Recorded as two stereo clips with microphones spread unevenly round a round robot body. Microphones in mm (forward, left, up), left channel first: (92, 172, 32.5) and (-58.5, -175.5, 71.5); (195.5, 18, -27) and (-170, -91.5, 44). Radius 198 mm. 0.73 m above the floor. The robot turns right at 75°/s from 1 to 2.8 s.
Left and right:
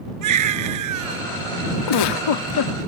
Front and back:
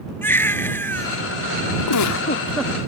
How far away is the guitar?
No guitar in this recording.